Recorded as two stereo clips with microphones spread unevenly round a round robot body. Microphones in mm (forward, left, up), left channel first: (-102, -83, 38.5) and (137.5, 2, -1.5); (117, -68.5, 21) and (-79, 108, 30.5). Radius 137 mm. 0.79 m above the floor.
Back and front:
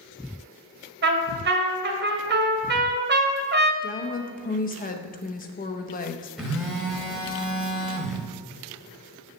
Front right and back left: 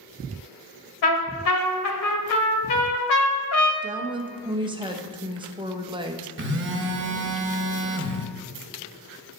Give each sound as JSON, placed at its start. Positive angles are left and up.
{"t": 1.0, "sound": "a trumpet", "azimuth_deg": -30, "distance_m": 1.8}
{"t": 3.8, "sound": "a woman speaking", "azimuth_deg": -175, "distance_m": 0.9}
{"t": 6.4, "sound": "a phone buzzing", "azimuth_deg": 100, "distance_m": 1.2}